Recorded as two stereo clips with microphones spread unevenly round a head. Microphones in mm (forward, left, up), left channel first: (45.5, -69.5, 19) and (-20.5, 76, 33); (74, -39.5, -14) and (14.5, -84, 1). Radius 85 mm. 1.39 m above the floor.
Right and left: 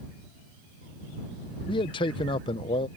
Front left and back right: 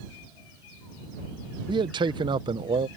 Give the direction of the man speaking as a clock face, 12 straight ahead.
4 o'clock.